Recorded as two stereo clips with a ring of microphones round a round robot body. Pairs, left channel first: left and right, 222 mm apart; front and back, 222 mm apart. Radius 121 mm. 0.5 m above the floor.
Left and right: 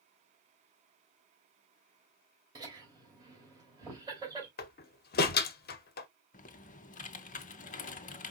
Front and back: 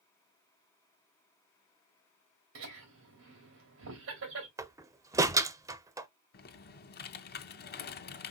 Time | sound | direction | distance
2.5 | laughter | 160° right | 2.5 m
4.6 | a door slam | 110° left | 0.6 m
6.3 | typing on a keyboard | 40° left | 0.5 m